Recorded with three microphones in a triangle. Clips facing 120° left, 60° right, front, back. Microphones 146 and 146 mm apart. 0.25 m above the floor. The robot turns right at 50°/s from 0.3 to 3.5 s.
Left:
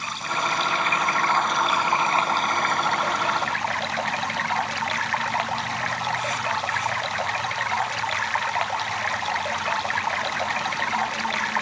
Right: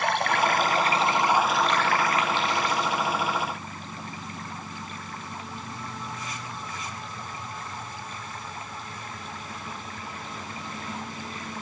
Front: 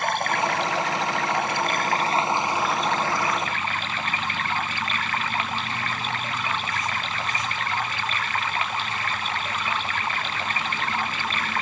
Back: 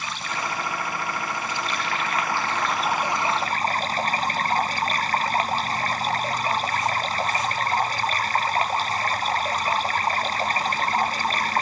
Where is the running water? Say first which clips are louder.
Right 5 dB, front 7 dB; 35° right; by 11.6 s 125° left.